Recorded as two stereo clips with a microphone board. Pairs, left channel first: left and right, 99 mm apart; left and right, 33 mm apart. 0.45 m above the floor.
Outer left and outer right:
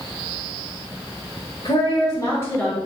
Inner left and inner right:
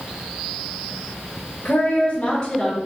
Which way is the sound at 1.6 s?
55° left (ahead or behind).